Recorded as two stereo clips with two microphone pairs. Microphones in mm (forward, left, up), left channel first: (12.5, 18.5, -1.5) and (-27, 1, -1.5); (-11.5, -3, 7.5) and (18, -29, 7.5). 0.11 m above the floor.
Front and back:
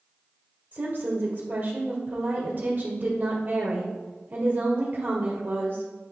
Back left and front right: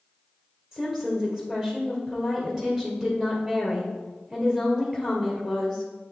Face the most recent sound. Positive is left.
turn(degrees=-120)